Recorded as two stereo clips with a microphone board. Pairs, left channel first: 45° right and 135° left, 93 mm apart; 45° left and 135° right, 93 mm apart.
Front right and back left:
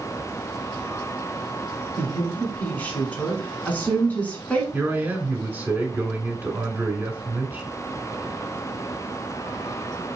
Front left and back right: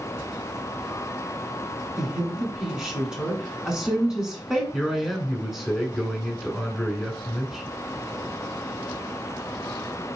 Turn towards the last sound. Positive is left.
turn(degrees=145)